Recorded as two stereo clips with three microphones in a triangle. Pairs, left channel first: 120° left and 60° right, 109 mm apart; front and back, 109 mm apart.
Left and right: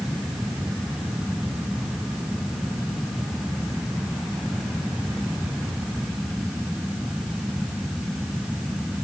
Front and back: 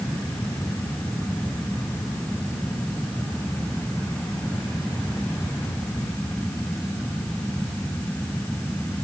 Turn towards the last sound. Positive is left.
No sound to turn to.